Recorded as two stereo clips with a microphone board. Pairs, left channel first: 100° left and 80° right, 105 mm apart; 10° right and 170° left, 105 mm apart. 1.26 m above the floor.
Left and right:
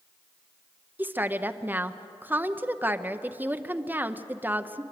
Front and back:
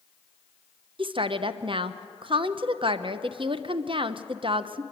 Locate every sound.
1.0 s a woman speaking: 150° right, 0.7 m